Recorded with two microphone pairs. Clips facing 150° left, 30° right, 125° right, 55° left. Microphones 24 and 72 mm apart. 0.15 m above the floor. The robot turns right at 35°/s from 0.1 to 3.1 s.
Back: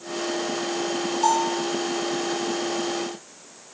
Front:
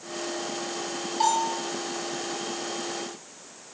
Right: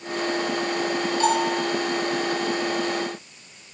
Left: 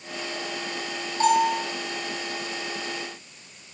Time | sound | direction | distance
1.2 | a bell | 5° right | 7 m